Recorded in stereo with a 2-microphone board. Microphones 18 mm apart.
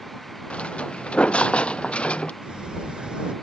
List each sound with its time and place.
0.5 s footsteps: 70° left (ahead or behind); by 2.3 s 65° left (ahead or behind)
2.4 s a sliding door: 45° right (ahead or behind)